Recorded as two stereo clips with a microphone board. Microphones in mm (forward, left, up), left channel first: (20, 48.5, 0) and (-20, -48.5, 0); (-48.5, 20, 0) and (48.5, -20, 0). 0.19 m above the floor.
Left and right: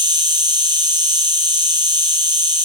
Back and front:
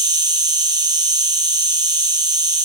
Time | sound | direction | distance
0.0 | an insect | 70° right | 1.0 m